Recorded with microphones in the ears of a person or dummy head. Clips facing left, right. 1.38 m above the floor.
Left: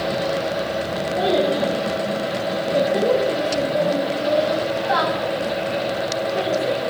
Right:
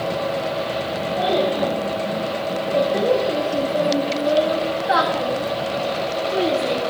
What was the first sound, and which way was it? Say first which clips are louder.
A child speaking: left 1 dB; 30° left (ahead or behind).